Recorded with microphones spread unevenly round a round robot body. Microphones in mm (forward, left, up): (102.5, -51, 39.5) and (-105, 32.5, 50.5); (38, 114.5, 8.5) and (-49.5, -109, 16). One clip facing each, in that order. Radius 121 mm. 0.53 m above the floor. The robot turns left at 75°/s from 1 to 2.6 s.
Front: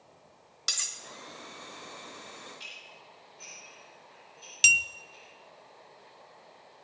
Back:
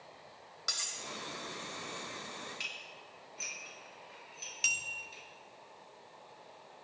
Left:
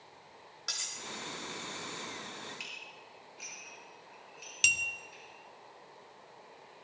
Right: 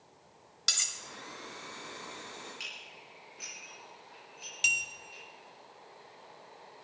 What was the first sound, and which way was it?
Cutlery clinking, 70° right.